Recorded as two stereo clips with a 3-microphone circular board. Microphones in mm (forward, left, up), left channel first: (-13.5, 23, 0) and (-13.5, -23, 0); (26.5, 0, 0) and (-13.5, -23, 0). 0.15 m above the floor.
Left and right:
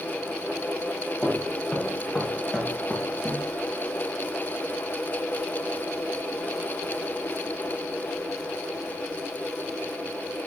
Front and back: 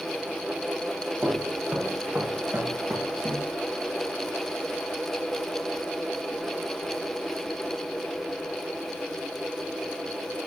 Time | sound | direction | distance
1.2 | footsteps | 175° left | 5.5 m